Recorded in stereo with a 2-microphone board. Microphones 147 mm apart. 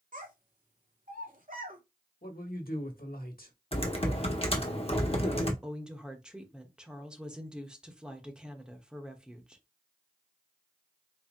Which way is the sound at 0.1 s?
65° right (ahead or behind).